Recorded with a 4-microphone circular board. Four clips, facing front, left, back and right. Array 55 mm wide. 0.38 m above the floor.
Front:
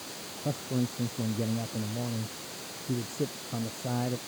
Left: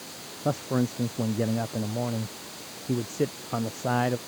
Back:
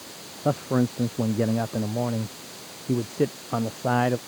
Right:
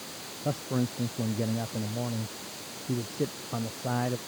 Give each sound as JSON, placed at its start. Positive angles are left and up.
{"t": 0.5, "sound": "a man speaking", "azimuth_deg": 160}